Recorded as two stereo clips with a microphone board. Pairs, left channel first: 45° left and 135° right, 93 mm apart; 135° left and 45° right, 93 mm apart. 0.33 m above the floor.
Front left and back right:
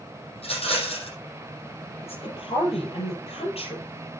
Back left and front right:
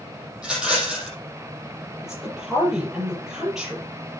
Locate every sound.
0.4 s a rattle: 35° left, 5.5 m
2.0 s a woman speaking: 40° left, 7.5 m